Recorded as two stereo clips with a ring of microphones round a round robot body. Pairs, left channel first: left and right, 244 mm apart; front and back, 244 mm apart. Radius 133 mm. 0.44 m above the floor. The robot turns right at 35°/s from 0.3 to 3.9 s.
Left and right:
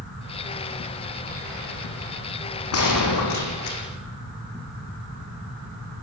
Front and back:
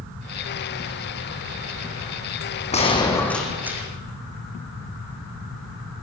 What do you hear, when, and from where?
2.7 s a gunshot: 65° left, 5.5 m; by 3.8 s 100° left, 5.5 m